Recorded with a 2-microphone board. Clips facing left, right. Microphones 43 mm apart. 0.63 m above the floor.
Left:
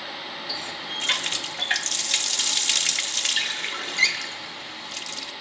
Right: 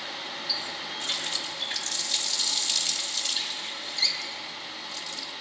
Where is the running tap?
65° left (ahead or behind), 0.8 m.